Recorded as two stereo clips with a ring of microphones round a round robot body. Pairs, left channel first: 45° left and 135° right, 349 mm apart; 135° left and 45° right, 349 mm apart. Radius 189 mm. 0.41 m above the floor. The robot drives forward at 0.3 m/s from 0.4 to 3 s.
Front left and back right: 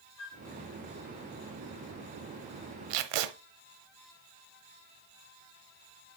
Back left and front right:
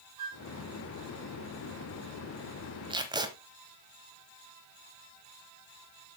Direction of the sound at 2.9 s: 120° right.